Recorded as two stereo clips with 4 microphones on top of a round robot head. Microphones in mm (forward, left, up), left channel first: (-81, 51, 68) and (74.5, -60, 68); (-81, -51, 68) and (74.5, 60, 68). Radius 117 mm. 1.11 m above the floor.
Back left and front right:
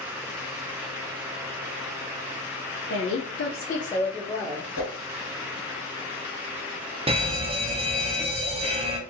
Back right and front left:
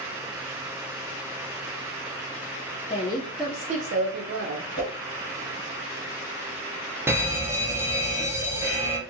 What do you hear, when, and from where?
2.9 s a woman speaking: 155° left, 0.9 m; by 4.7 s 40° left, 1.3 m
4.8 s a whoosh: 165° left, 2.5 m
7.1 s a fire alarm: 30° right, 1.1 m